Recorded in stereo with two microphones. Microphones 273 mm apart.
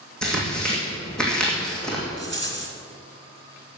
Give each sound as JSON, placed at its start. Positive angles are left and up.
{"t": 0.2, "sound": "tearing paper", "side_deg": 5, "distance_m": 3.0}
{"t": 2.2, "sound": "a rattle", "side_deg": -45, "distance_m": 1.8}